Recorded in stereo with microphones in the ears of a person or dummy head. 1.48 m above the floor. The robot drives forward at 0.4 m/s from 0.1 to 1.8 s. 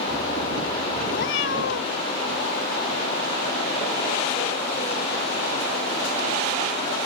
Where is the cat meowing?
75° left (ahead or behind).